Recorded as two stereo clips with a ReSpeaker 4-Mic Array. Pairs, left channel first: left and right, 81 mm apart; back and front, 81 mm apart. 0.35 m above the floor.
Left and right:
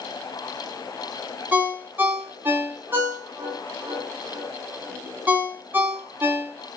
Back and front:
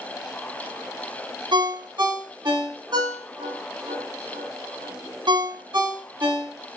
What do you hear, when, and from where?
1.5 s a ringtone: 25° right, 1.1 m